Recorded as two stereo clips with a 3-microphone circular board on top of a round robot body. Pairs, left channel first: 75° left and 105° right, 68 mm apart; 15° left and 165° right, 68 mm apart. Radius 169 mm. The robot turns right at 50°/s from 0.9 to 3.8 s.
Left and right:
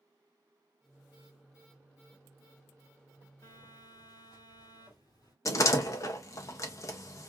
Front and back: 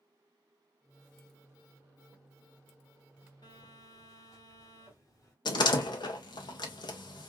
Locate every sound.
3.4 s a phone buzzing: 35° left, 1.5 m; by 5.3 s 55° left, 1.5 m
5.5 s a door slam: 30° left, 0.6 m